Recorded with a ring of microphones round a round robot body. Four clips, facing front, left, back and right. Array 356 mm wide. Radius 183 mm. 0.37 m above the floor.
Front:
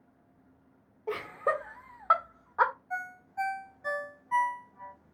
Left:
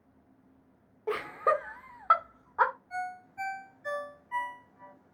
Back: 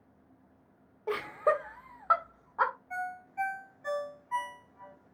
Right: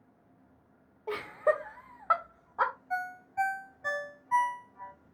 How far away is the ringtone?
About 1.1 m.